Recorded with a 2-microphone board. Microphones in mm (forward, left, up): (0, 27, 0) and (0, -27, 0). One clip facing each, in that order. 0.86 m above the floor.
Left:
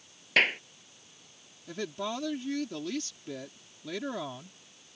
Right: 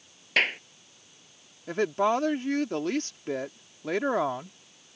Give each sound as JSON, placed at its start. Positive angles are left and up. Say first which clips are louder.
{"t": 0.4, "sound": "a clap", "louder": "even", "side_deg": 0}
{"t": 1.7, "sound": "a woman speaking", "louder": "right 10 dB", "side_deg": -50}